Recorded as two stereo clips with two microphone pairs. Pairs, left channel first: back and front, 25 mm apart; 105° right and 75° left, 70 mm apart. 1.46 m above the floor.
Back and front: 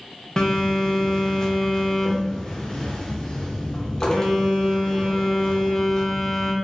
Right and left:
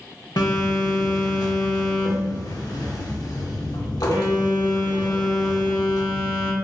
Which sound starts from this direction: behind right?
A phone buzzing, at 0.4 s.